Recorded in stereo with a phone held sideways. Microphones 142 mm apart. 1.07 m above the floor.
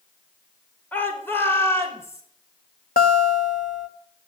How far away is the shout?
About 5 m.